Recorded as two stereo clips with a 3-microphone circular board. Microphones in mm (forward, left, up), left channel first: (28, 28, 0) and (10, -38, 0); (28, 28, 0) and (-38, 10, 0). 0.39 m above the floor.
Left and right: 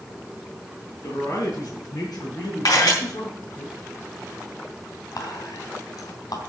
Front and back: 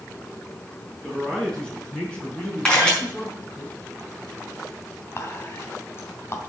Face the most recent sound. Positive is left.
turn(degrees=65)